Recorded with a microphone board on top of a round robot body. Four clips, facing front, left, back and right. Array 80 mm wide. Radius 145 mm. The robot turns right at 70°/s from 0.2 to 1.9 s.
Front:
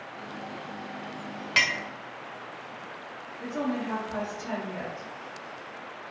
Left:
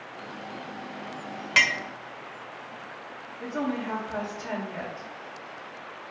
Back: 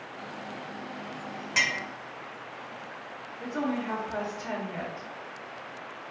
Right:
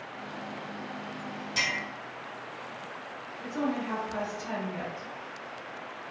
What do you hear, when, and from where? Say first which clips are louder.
1.6 s a clink: left 8 dB, front 2 dB; 70° left, 0.6 m; by 1.8 s 85° left, 0.6 m
3.4 s a woman speaking: left 1 dB, even; 125° left, 1.8 m